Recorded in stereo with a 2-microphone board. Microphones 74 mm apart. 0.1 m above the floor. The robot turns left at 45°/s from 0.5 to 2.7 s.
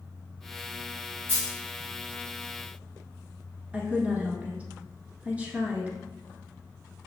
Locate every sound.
1.3 s a dropped coin: 25° left (ahead or behind), 1.7 m; by 1.5 s 15° left (ahead or behind), 1.7 m
3.7 s a woman speaking: 20° right (ahead or behind), 1.1 m